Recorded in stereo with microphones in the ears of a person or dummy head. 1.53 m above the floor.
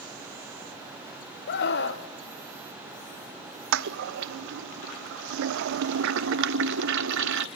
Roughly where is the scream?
Left.